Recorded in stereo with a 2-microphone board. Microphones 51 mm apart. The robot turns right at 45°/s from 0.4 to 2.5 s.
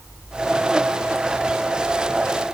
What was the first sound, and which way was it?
Only background noise.